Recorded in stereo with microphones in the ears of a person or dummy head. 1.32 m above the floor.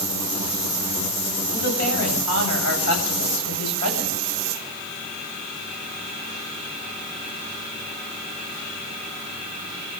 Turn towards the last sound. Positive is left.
turn(degrees=90)